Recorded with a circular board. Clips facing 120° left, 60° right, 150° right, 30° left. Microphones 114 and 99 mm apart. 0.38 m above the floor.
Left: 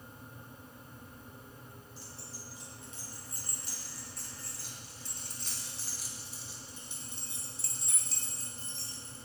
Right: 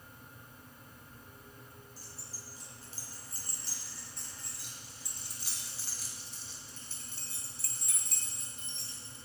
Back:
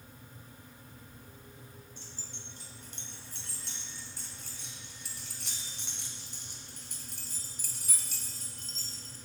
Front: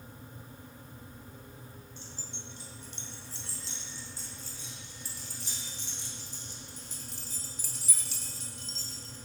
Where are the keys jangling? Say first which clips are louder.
Left 3 dB, front 3 dB; 105° right, 3.5 m; by 9.2 s 165° left, 2.5 m.